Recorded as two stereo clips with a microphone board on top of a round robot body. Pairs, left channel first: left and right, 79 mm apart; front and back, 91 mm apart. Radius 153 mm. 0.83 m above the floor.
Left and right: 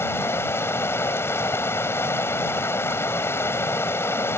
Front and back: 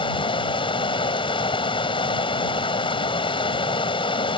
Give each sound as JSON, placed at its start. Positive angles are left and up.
{"t": 0.0, "sound": "running water", "azimuth_deg": 30}